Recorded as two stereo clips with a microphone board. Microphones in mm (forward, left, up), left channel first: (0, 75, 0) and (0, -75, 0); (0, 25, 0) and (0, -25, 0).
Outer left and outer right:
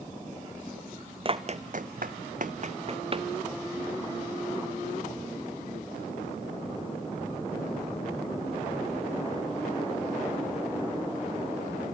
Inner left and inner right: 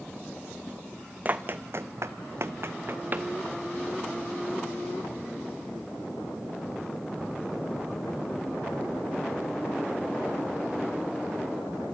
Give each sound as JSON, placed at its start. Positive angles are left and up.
{"t": 1.2, "sound": "running footsteps", "side_deg": -35, "distance_m": 0.9}